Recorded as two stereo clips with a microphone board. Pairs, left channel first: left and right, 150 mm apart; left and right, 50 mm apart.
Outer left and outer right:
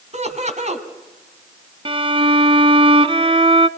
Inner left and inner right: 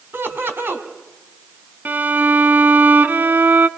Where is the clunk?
No clunk in this recording.